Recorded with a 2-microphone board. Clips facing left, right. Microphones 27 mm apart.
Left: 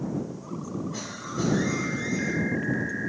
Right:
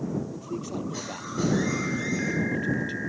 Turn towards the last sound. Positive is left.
turn(degrees=-55)  # may be behind; listen again after turning